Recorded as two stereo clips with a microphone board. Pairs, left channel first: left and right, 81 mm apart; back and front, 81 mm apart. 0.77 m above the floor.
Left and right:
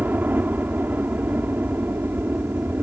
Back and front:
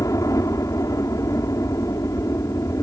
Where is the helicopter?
150° right.